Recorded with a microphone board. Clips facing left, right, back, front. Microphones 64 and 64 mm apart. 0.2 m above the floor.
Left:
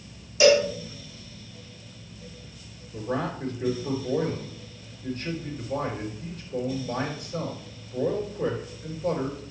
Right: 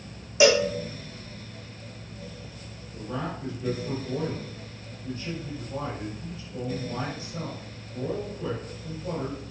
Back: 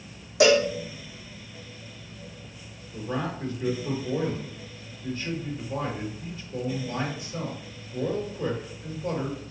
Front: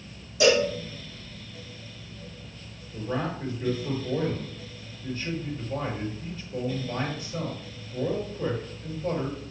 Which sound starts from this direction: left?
A man speaking, at 2.9 s.